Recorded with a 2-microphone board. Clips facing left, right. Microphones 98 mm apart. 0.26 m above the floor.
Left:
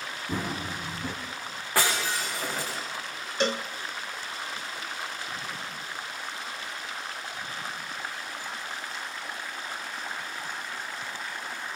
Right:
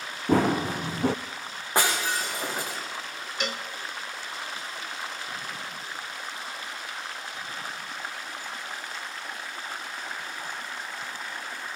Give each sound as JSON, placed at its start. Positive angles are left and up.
{"t": 0.3, "sound": "running footsteps", "side_deg": -70, "distance_m": 1.0}
{"t": 1.8, "sound": "breaking glass", "side_deg": -20, "distance_m": 7.5}
{"t": 3.4, "sound": "a cowbell", "side_deg": 30, "distance_m": 0.5}